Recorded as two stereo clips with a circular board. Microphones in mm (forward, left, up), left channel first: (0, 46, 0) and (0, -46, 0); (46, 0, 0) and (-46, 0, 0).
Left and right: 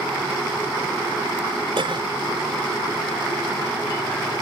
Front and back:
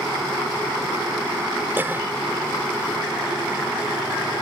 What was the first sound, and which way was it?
A cough, 115° right.